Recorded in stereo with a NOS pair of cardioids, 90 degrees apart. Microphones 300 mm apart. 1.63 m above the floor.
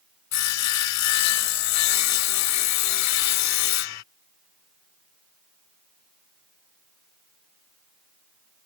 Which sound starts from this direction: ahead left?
Sawing, at 0.3 s.